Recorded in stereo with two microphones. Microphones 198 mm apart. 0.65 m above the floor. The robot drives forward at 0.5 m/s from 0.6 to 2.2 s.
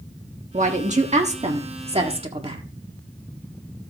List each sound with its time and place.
0.5 s a woman speaking: 40° right (ahead or behind), 1.4 m; by 2.6 s 30° right (ahead or behind), 1.8 m